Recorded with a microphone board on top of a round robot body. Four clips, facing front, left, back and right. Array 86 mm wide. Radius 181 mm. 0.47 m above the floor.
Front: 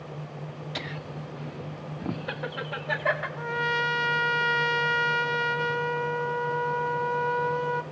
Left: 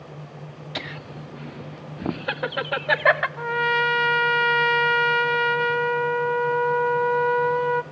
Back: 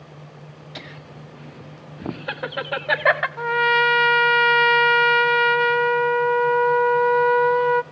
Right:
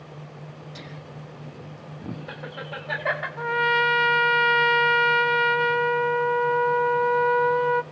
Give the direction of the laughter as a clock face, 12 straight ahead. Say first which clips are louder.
Left 5 dB, front 2 dB; 9 o'clock.